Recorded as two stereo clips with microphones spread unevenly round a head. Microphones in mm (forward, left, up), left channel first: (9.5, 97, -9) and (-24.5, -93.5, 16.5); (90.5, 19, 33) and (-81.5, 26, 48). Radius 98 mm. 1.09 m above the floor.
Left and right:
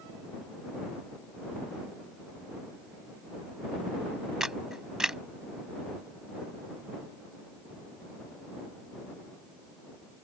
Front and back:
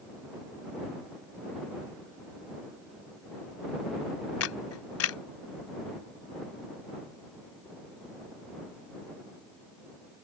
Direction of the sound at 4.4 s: 15° right.